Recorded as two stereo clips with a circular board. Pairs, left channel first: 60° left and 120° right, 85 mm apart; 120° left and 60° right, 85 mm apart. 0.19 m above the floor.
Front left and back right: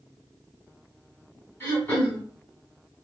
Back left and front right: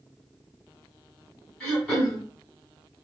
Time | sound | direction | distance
1.6 | throat clearing | 60° left | 1.7 m